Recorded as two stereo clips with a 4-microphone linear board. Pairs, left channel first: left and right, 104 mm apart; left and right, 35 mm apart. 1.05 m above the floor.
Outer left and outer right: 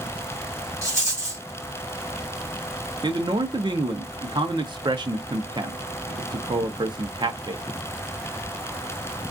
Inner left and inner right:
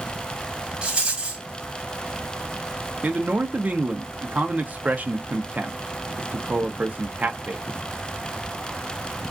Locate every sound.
0.8 s a rattle: 25° right (ahead or behind), 1.5 m
3.0 s a man speaking: 45° right (ahead or behind), 0.5 m